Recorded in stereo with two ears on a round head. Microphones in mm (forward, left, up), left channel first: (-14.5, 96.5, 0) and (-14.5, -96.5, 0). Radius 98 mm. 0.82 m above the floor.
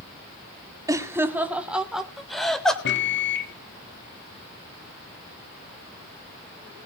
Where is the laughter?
15° right (ahead or behind), 2 m; by 2.8 s 5° left (ahead or behind), 3.5 m.